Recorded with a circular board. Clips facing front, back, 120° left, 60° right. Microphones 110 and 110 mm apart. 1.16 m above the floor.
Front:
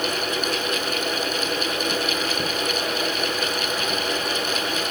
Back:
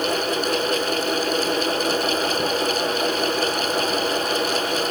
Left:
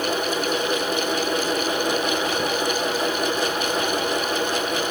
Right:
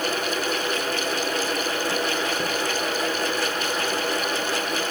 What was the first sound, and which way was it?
Only background noise.